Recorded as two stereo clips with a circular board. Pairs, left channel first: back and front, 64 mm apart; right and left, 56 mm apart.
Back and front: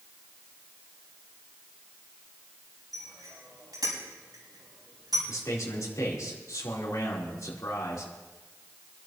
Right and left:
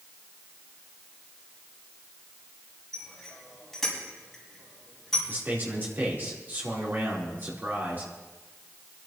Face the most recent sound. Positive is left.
turn(degrees=145)